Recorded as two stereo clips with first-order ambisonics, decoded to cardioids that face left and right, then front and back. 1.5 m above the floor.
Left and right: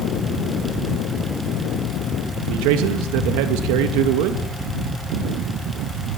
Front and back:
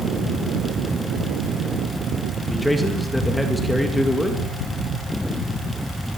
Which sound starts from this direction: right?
A man speaking, at 2.5 s.